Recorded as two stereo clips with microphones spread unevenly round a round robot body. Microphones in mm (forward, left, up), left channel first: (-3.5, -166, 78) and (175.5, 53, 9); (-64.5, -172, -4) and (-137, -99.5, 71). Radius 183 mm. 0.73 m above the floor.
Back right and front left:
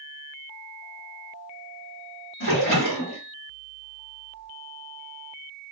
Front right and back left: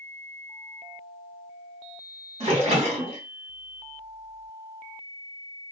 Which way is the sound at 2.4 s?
Straight behind.